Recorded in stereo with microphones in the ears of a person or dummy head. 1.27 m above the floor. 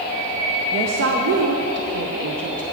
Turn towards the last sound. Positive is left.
turn(degrees=-60)  # may be behind; listen again after turning